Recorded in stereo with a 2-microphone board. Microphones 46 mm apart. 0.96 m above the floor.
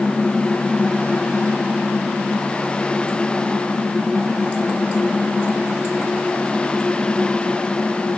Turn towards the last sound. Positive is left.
No sound to turn to.